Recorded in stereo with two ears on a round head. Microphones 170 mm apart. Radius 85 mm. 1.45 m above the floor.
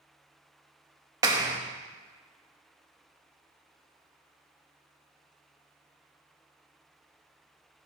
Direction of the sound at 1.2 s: 20° right (ahead or behind).